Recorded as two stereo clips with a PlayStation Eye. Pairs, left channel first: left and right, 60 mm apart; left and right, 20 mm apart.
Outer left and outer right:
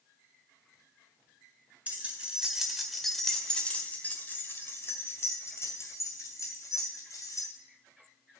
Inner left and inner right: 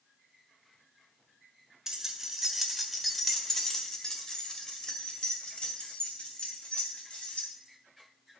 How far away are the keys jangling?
About 1.7 m.